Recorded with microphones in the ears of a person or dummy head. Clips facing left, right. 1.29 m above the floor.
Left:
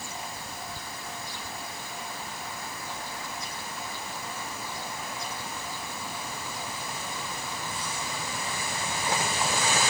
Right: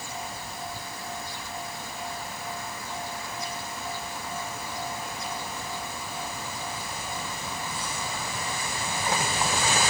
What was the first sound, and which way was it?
Only background noise.